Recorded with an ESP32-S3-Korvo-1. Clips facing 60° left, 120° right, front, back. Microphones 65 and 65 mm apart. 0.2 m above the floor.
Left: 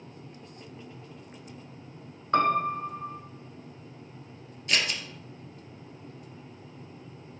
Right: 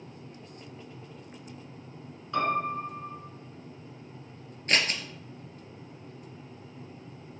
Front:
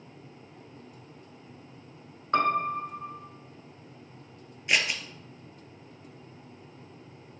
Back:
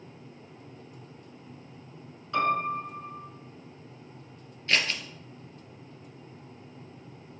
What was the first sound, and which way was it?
A piano, 35° left.